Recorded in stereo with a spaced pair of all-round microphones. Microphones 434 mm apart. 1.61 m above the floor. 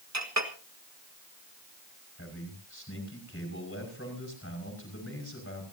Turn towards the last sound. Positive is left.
turn(degrees=30)  # may be behind; listen again after turning